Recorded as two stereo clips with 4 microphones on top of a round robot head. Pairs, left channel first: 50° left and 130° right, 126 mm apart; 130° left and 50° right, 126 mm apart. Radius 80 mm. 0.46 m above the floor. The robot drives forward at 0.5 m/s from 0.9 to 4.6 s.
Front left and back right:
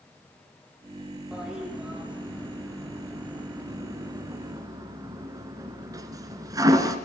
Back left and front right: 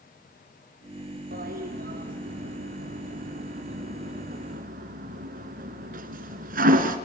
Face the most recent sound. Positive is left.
turn(degrees=-65)